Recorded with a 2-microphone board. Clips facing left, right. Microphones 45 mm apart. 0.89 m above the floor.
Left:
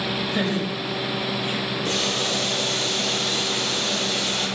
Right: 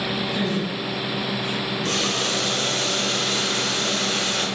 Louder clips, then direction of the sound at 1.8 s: Right 1 dB; 75° right (ahead or behind).